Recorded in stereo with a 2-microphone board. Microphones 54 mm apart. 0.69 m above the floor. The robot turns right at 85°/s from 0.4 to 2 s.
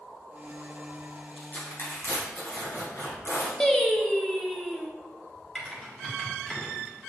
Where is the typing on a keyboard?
5° left (ahead or behind), 1.1 m.